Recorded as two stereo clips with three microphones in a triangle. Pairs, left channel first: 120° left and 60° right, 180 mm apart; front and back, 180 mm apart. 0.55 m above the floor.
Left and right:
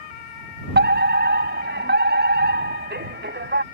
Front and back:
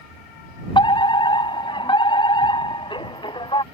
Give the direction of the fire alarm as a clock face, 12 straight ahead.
2 o'clock.